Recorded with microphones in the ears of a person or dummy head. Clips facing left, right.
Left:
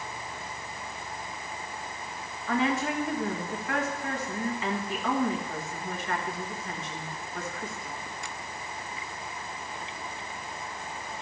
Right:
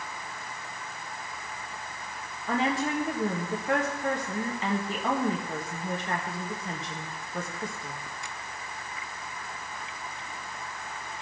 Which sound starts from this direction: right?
A woman speaking, at 2.5 s.